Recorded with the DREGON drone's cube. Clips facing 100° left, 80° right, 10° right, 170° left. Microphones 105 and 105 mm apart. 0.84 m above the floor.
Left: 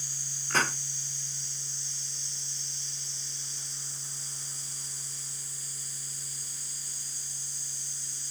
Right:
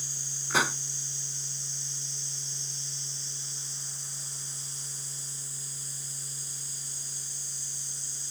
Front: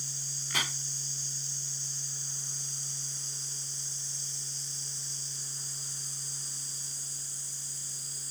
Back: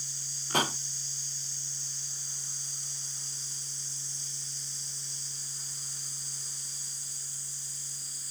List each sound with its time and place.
0.5 s a pop: 160° right